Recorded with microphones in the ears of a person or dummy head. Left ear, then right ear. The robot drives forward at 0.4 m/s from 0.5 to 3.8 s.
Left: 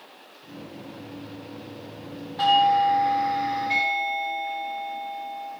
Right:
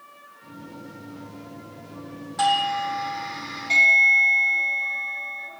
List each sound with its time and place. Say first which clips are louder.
2.4 s a doorbell: left 3 dB; 75° right (ahead or behind), 3.5 m; by 5.5 s 65° right (ahead or behind), 4 m